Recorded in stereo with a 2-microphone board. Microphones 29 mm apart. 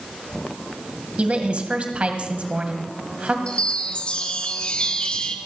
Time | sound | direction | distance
1.2 | a woman speaking | 40° right (ahead or behind) | 2 m
3.5 | a chime | 40° left (ahead or behind) | 1.5 m